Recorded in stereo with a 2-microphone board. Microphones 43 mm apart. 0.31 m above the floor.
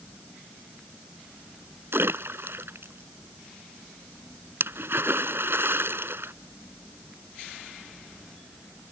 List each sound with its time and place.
1.9 s a splash: 60° right (ahead or behind)